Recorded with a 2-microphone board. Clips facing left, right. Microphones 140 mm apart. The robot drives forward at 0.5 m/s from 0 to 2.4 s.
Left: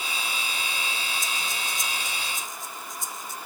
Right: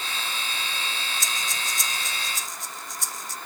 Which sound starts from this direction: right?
Breathing, at 1.2 s.